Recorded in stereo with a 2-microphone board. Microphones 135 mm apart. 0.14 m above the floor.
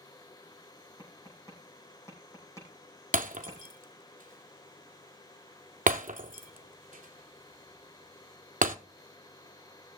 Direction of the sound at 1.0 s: 20° left (ahead or behind).